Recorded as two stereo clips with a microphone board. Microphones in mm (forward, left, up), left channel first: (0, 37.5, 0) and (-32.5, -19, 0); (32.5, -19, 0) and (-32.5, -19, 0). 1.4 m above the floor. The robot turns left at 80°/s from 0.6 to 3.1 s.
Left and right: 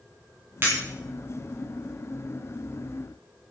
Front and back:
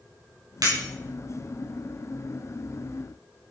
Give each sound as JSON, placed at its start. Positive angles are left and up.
{"t": 0.6, "sound": "breaking glass", "azimuth_deg": -175, "distance_m": 8.5}